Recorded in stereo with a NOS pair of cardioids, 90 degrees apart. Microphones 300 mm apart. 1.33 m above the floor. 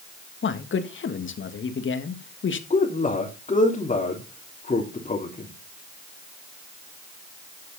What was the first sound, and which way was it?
A man speaking, 40° left.